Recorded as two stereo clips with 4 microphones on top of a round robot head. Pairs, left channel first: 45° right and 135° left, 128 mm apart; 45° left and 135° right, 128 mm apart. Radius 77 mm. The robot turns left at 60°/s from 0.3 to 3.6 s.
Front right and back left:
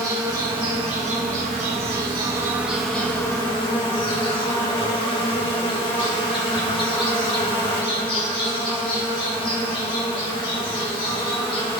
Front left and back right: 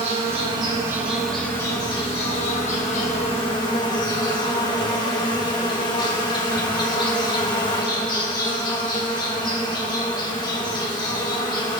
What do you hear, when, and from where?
0.0 s an insect: 165° right, 1.6 m; by 11.8 s 5° right, 1.6 m